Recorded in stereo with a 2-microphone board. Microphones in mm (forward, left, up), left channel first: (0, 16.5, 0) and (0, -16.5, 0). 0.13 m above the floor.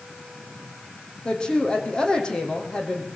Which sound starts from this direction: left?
A woman speaking, at 1.2 s.